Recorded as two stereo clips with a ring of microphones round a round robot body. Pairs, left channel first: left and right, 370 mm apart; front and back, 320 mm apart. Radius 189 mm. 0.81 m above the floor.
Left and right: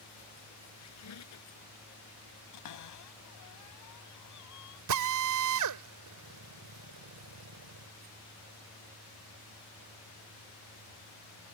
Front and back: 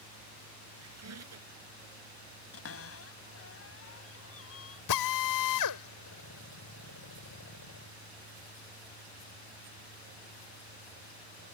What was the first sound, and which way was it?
A squeak, 140° left.